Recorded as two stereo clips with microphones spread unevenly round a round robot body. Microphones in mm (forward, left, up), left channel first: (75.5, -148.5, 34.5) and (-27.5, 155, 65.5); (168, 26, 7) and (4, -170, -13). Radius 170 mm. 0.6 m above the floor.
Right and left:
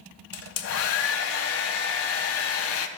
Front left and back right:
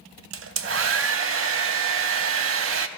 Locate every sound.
0.3 s a hair dryer: 115° right, 0.5 m